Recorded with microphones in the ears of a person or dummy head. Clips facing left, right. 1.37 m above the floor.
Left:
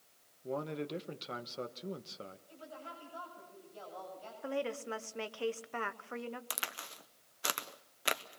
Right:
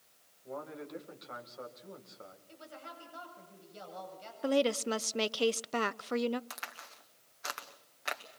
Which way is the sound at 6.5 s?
40° left (ahead or behind).